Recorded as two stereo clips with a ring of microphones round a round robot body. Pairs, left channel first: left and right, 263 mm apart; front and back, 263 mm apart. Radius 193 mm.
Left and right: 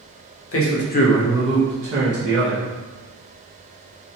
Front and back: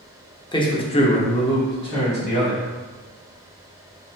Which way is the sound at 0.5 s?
75° left.